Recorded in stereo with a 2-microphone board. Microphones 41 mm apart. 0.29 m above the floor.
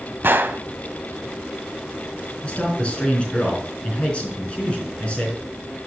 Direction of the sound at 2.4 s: 30° left (ahead or behind).